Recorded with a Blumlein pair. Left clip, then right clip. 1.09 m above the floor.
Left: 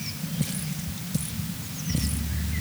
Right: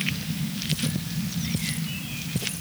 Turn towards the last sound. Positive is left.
No sound to turn to.